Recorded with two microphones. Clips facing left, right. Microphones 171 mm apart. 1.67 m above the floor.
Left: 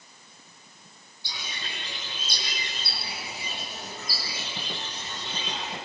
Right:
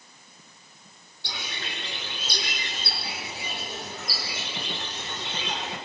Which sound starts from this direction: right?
A bird, at 1.2 s.